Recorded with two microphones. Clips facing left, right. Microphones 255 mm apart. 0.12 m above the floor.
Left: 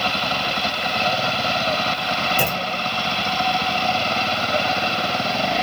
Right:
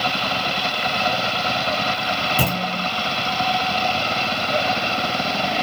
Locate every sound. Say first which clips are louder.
2.4 s a clunk: right 1 dB; 35° right (ahead or behind), 1.0 m